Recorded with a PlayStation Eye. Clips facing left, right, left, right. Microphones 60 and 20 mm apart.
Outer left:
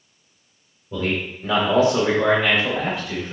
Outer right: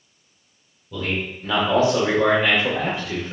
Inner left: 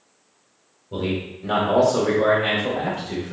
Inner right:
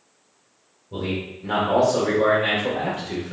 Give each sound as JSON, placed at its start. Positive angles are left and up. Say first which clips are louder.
{"t": 0.9, "sound": "a man speaking", "louder": "outer left 2 dB, inner left 2 dB", "side_deg": 25, "distance_m": 1.0}